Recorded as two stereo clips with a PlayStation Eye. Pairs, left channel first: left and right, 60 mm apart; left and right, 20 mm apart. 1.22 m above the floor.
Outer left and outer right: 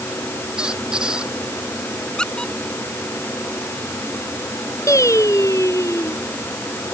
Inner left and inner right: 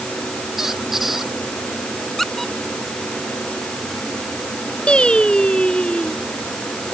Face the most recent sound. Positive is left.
turn(degrees=60)  # may be behind; listen again after turning